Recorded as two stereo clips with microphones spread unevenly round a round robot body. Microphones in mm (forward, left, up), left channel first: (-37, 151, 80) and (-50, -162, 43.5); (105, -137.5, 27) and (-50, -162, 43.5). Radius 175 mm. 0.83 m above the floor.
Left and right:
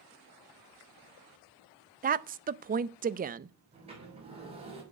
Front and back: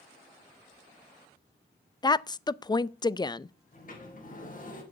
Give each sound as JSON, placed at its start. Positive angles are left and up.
{"t": 2.0, "sound": "a woman speaking", "azimuth_deg": -45, "distance_m": 0.6}
{"t": 3.7, "sound": "a sliding door", "azimuth_deg": -20, "distance_m": 6.0}